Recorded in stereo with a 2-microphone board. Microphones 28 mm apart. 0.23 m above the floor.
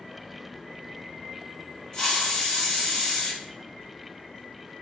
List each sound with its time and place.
1.9 s a hiss: 30° left (ahead or behind), 1.8 m